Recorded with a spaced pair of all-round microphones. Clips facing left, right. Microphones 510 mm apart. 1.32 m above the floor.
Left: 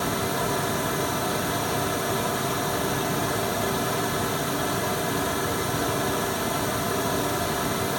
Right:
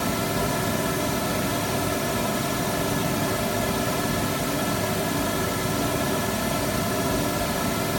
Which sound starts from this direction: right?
A fan, at 0.0 s.